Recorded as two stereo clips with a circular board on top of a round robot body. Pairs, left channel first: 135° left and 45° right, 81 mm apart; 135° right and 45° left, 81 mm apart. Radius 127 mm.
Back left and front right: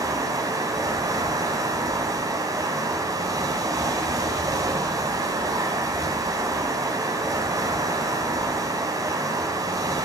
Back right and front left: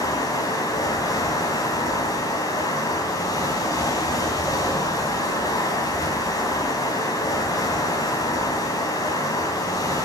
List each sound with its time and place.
0.0 s running water: 90° right, 4 m